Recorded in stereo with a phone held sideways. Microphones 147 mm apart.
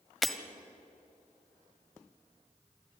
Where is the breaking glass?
Centre (ahead or behind), 1.2 m.